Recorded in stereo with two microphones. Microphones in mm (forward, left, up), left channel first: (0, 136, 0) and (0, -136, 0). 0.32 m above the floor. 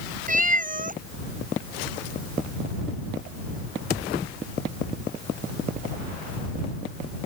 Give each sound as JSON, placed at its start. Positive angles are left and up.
{"t": 0.3, "sound": "a cat meowing", "side_deg": -30}